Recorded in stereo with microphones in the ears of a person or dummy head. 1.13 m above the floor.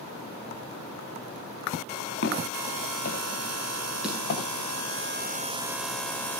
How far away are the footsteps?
About 8 m.